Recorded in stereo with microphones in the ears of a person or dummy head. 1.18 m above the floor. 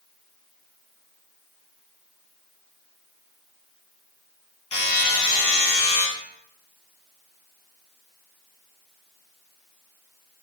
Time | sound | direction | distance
4.7 | a buzzer | 30° left (ahead or behind) | 2.5 m